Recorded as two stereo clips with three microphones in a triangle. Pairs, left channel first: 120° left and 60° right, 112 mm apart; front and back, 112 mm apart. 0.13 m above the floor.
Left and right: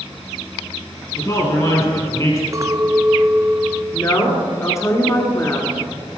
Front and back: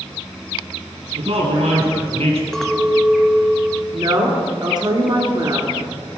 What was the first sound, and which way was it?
A man speaking, 175° left.